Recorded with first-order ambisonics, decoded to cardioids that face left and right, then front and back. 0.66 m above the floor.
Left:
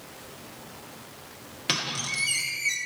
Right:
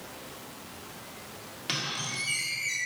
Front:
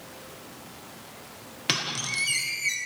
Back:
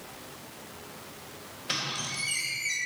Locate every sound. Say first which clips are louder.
1.7 s a squeak: left 4 dB, front 4 dB; 25° left, 1.0 m